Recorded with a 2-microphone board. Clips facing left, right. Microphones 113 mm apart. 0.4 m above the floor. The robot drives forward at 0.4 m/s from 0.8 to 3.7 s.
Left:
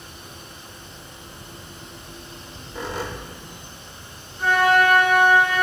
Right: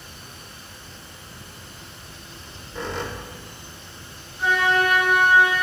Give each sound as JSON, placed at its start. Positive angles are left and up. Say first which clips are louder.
{"t": 2.3, "sound": "a squeak", "louder": "right 1 dB", "side_deg": 5, "distance_m": 1.0}
{"t": 4.4, "sound": "a flute", "louder": "left 3 dB", "side_deg": -5, "distance_m": 2.5}